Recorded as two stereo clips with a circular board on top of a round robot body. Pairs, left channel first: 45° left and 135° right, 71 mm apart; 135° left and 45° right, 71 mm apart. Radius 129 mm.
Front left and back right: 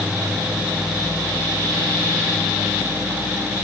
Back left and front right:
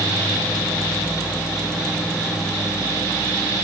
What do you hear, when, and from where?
Only background noise.